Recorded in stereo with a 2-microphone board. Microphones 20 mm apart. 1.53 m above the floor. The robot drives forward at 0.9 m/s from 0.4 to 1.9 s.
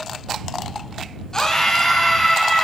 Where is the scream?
25° left (ahead or behind), 1.0 m; by 2.6 s 15° left (ahead or behind), 1.5 m.